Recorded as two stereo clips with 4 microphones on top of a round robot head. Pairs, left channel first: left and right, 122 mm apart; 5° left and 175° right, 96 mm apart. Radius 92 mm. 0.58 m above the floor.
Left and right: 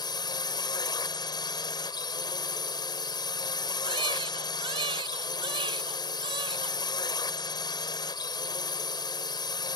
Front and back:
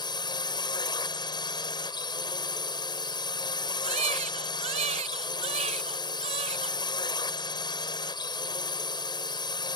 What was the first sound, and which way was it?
A drone, 40° left.